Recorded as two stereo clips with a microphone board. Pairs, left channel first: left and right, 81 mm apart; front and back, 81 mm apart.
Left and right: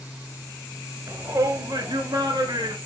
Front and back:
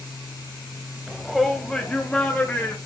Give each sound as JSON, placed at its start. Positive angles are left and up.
{"t": 1.1, "sound": "a shout", "azimuth_deg": -100, "distance_m": 1.1}